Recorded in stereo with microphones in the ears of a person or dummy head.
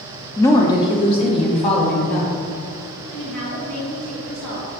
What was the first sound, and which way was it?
A woman speaking, 10° left (ahead or behind).